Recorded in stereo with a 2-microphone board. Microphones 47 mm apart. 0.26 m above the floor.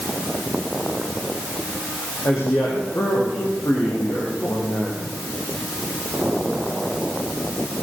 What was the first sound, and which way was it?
A woman speaking, 65° left (ahead or behind).